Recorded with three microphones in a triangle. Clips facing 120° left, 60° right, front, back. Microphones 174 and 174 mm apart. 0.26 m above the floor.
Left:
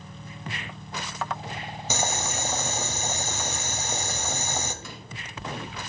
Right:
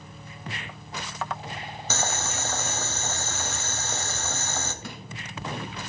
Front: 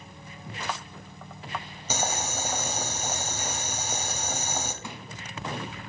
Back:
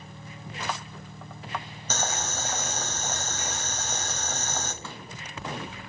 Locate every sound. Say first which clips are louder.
1.9 s boiling: left 2 dB, front 2 dB; 65° left, 0.9 m
4.8 s crushing: right 3 dB, front 1 dB; 75° right, 1.4 m